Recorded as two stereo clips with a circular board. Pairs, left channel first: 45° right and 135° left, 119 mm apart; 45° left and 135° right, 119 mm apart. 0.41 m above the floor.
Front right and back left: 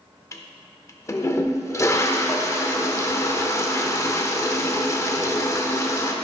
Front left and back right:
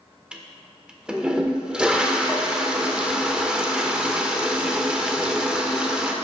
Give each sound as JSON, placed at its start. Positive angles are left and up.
{"t": 0.3, "sound": "a toilet flushing", "azimuth_deg": -60, "distance_m": 0.5}